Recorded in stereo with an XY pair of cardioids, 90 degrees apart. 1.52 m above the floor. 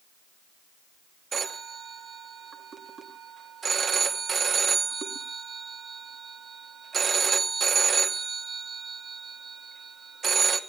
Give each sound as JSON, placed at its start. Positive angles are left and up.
{"t": 1.3, "sound": "a phone ringing", "azimuth_deg": -50, "distance_m": 2.5}